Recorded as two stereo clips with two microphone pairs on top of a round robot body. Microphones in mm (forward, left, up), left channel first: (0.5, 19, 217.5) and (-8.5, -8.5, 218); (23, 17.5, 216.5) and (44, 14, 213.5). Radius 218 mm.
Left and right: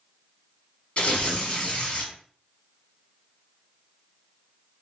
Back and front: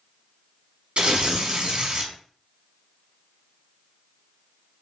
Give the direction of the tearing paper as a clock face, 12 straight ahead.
11 o'clock.